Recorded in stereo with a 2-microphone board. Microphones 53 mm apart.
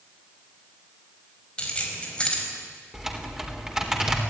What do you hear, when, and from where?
1.6 s keys jangling: 20° left (ahead or behind), 5 m
2.9 s typing on a keyboard: 15° right (ahead or behind), 3.5 m